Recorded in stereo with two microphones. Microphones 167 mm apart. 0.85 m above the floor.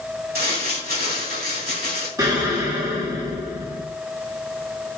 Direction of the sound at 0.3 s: 65° right (ahead or behind).